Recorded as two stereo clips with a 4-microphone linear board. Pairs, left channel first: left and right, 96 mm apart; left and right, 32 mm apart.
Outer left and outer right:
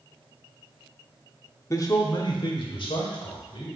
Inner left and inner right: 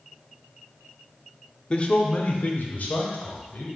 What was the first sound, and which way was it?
A man speaking, 30° left (ahead or behind).